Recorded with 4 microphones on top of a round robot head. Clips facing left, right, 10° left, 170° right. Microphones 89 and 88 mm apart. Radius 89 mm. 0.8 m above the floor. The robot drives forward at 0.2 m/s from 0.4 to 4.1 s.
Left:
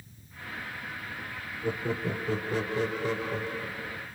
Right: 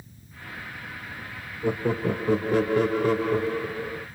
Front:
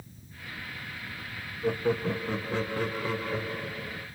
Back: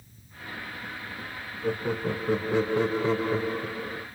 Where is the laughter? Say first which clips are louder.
Right 6 dB, front 1 dB; 75° right, 0.6 m; by 4.0 s 130° right, 0.7 m.